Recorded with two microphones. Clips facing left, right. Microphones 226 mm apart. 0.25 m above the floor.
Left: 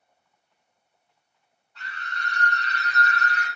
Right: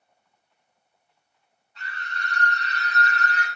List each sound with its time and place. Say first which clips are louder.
1.8 s a scream: right 1 dB; 20° right (ahead or behind), 1.6 m; by 3.5 s 30° right (ahead or behind), 1.5 m